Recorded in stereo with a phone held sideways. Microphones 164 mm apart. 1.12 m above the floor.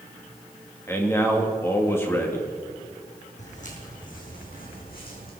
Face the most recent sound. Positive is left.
turn(degrees=75)  # may be behind; listen again after turning